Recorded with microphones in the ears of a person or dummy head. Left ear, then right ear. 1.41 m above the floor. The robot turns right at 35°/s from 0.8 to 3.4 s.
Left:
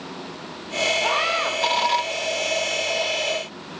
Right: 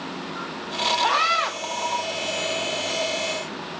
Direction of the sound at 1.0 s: 35° right (ahead or behind).